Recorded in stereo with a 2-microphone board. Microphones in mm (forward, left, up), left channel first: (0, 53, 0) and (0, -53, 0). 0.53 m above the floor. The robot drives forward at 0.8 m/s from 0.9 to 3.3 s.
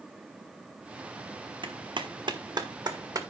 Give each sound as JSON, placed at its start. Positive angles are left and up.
{"t": 1.6, "sound": "a clap", "side_deg": -50, "distance_m": 1.4}